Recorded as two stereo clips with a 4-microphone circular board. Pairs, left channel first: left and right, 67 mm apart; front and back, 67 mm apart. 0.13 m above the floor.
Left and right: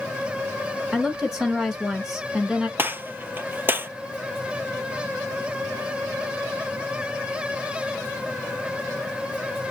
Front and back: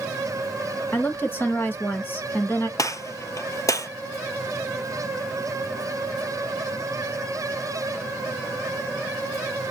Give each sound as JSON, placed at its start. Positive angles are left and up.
{"t": 0.9, "sound": "a woman speaking", "azimuth_deg": -15, "distance_m": 1.7}
{"t": 2.8, "sound": "a gunshot", "azimuth_deg": -30, "distance_m": 0.6}